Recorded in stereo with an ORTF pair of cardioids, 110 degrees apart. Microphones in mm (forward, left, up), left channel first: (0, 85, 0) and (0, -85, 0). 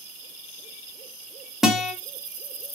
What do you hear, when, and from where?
1.6 s a guitar: straight ahead, 1.0 m